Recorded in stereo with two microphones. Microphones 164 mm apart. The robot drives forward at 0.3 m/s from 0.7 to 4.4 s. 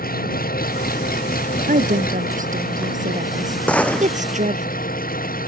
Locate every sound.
0.0 s an engine running: 65° left (ahead or behind); by 5.5 s 60° left (ahead or behind)
1.7 s a woman speaking: 55° right (ahead or behind); by 4.7 s 50° right (ahead or behind)
3.7 s a gunshot: 10° left (ahead or behind)